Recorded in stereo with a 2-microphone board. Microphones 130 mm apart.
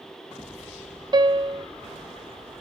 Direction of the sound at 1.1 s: 35° right (ahead or behind).